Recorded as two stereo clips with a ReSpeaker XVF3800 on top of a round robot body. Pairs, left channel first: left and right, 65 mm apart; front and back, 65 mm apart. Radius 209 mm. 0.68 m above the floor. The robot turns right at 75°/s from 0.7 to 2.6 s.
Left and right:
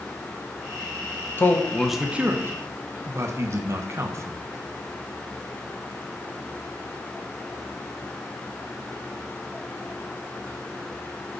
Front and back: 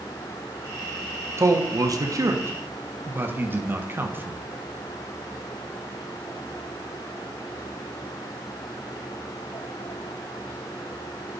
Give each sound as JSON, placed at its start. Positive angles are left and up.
{"t": 1.4, "sound": "a man speaking", "azimuth_deg": 140, "distance_m": 1.5}